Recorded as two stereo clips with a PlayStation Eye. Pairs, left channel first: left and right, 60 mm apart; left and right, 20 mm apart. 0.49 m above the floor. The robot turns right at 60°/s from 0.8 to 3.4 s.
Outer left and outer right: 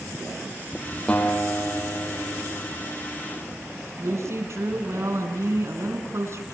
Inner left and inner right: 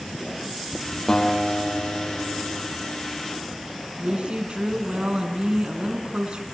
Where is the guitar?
20° left, 6 m; by 2.7 s 115° left, 6 m.